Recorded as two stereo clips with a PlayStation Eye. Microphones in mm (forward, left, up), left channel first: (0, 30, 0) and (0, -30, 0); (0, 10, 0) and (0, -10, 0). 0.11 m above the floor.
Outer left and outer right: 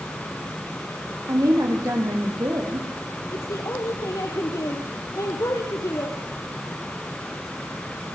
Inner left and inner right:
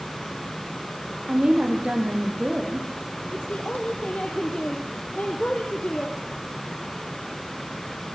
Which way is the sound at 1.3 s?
70° right (ahead or behind).